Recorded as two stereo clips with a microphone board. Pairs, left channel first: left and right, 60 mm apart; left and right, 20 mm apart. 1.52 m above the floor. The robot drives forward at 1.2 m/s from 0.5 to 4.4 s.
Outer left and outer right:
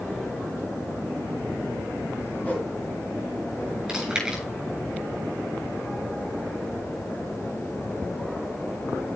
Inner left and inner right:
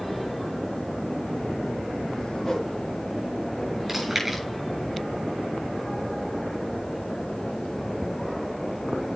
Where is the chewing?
10° right (ahead or behind), 8 m.